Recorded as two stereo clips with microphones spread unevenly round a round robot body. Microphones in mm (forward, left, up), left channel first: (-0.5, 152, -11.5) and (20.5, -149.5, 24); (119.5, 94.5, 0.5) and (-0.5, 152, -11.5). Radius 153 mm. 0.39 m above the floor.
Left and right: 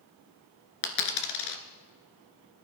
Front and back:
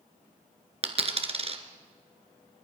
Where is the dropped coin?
110° left, 1.7 m.